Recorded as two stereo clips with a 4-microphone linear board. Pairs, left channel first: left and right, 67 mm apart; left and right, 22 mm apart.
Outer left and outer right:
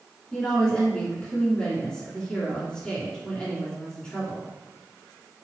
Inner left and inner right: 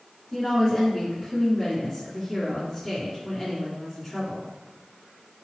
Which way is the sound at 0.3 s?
15° left (ahead or behind).